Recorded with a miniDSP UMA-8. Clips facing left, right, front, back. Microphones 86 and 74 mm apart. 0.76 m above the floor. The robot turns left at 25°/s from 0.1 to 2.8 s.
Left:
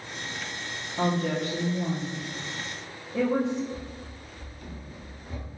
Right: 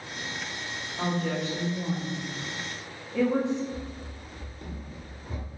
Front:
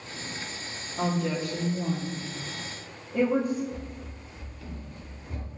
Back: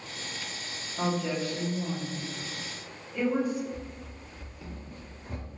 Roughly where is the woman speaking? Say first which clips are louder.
Left 3 dB, front 1 dB; left.